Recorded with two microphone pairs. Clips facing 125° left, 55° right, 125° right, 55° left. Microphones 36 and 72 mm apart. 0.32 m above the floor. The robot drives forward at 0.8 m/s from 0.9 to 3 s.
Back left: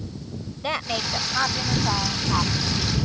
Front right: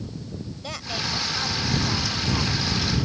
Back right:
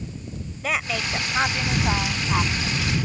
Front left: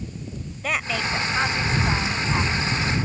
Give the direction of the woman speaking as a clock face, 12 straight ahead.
7 o'clock.